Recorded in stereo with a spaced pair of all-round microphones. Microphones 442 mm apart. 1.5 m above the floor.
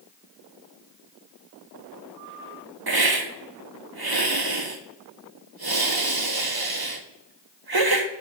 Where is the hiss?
55° right (ahead or behind), 0.9 m.